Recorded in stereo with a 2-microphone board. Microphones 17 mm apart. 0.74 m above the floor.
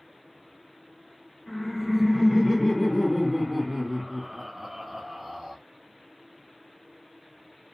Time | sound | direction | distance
1.5 | laughter | 20° left (ahead or behind) | 2.0 m